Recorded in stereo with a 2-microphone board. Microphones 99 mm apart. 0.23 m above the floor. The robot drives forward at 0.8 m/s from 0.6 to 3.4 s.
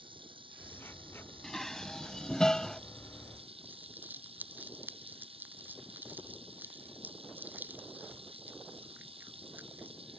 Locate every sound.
0.0 s running water: 60° right (ahead or behind); by 10.2 s 75° right (ahead or behind)
1.4 s dishes clattering: 5° left (ahead or behind)
3.6 s crumpling: 20° right (ahead or behind)